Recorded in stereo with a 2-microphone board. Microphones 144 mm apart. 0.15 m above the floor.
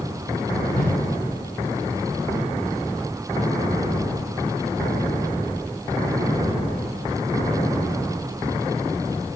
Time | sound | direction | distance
0.7 | a whoosh | 70° left (ahead or behind) | 8 m